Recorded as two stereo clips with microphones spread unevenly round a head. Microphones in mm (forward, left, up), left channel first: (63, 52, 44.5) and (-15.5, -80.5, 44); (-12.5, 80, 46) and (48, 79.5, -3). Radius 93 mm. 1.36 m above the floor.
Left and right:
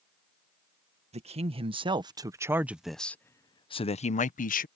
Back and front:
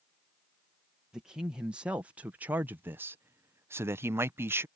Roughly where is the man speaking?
Right.